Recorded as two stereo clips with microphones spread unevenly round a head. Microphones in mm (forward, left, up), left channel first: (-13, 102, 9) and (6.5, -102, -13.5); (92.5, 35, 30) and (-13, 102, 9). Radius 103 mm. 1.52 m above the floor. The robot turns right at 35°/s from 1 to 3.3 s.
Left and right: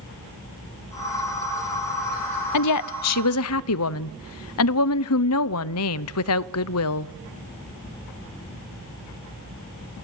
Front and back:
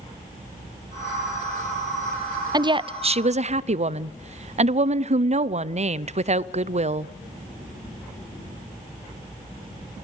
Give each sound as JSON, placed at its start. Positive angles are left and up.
{"t": 2.5, "sound": "a woman speaking", "azimuth_deg": 90, "distance_m": 0.6}